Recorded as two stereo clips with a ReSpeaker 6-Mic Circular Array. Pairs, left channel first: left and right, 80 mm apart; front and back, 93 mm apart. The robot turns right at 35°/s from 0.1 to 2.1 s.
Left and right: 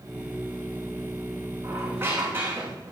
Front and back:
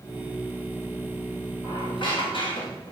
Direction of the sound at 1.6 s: 40° right.